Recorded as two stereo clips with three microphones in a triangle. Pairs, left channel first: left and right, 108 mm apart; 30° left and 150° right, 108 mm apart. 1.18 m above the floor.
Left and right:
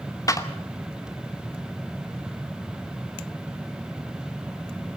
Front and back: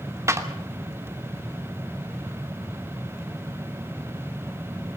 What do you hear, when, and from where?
0.3 s a clap: 145° left, 2.5 m